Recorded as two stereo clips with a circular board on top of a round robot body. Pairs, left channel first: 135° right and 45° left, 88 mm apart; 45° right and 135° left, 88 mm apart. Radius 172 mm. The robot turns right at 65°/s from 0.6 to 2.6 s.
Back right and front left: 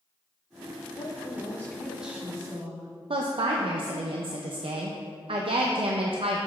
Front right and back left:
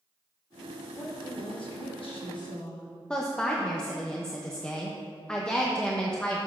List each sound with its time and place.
1.0 s a woman speaking: 105° right, 1.3 m; by 2.9 s straight ahead, 1.3 m
3.1 s a woman speaking: 35° left, 0.6 m